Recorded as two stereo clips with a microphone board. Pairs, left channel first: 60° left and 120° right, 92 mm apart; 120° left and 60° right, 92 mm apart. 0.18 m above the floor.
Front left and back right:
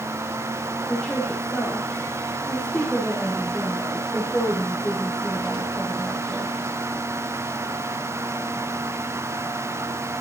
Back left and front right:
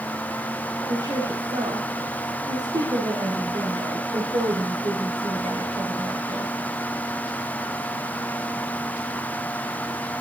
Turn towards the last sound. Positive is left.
turn(degrees=-20)